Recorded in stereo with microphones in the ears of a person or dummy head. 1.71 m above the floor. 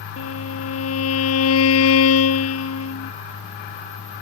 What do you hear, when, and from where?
0.2 s a violin: 85° left